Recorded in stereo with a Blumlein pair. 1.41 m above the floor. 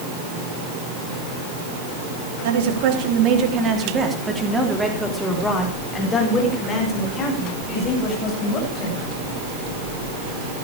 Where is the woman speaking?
50° right, 4 m; by 9.0 s 35° left, 9 m.